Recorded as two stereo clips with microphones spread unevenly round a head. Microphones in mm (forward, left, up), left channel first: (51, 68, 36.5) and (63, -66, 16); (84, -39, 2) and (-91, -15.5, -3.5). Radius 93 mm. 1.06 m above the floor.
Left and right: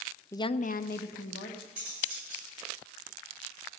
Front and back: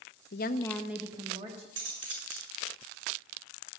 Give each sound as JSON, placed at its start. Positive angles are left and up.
{"t": 0.3, "sound": "a woman speaking", "azimuth_deg": 25, "distance_m": 0.7}
{"t": 1.8, "sound": "cutlery clinking", "azimuth_deg": -165, "distance_m": 9.0}